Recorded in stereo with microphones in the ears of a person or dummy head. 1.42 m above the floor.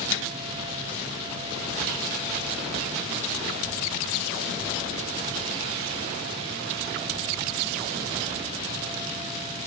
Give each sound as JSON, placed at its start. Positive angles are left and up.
{"t": 0.1, "sound": "a microwave", "side_deg": 65}